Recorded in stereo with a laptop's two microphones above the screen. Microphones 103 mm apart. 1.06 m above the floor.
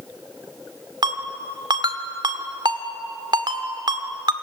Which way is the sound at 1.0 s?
50° right (ahead or behind).